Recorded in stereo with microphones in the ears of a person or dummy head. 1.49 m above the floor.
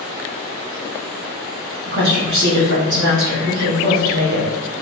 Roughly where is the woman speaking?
Right.